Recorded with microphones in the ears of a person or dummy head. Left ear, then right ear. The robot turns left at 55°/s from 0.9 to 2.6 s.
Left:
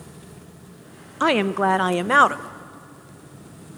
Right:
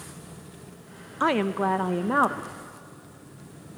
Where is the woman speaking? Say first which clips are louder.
Left 4 dB; 170° left, 0.5 m; by 2.5 s 100° left, 0.5 m.